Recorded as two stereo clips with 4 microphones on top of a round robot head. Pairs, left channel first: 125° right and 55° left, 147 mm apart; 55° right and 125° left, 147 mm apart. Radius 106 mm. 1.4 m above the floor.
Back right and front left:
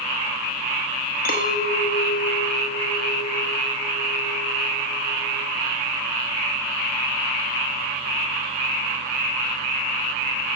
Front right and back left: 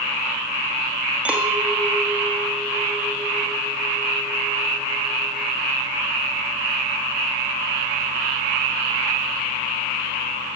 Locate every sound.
1.2 s a clink: 150° right, 1.6 m